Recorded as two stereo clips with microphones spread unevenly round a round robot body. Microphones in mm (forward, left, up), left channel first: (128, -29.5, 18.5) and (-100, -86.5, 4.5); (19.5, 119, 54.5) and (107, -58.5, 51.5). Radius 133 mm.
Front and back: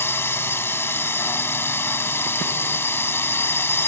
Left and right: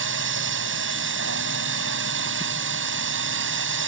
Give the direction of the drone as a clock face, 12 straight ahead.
2 o'clock.